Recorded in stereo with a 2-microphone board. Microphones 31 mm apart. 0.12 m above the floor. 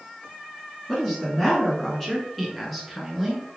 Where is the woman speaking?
10° left (ahead or behind), 1.1 m; by 3.4 s centre (ahead or behind), 1.4 m.